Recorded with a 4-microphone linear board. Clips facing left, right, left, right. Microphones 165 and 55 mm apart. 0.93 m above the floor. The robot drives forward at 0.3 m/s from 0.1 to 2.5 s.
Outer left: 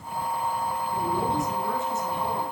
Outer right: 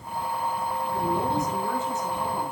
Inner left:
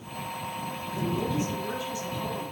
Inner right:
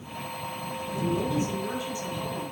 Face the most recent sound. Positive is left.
turn(degrees=-20)  # may be behind; listen again after turning